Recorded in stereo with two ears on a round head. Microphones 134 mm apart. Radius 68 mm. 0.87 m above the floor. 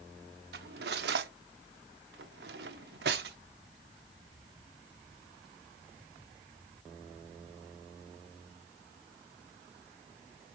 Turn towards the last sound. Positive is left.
turn(degrees=-85)